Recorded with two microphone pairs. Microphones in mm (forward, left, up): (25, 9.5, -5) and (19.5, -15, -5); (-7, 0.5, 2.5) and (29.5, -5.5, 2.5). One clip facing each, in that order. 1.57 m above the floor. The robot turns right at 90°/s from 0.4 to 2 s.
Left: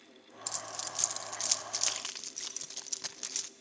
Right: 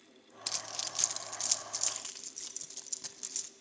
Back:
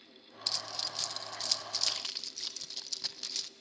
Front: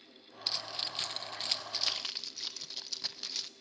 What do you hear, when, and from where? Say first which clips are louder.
0.5 s keys jangling: right 2 dB, front 1 dB; 75° right, 0.7 m; by 3.5 s 65° left, 0.7 m